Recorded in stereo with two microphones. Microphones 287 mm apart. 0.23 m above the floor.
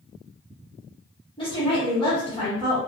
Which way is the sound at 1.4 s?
15° left (ahead or behind).